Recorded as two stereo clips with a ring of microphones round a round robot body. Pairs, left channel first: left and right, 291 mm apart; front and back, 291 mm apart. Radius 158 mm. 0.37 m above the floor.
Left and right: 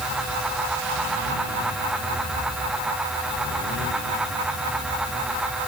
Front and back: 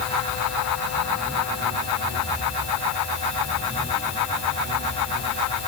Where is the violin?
No violin in this recording.